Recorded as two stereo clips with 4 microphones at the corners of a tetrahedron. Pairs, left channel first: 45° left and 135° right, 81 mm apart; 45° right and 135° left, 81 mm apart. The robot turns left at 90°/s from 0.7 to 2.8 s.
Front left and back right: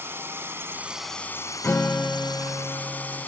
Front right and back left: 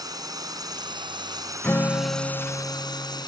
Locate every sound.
0.0 s a drone: 165° left; by 3.3 s 20° right
1.6 s a guitar: 5° left; by 3.2 s 100° right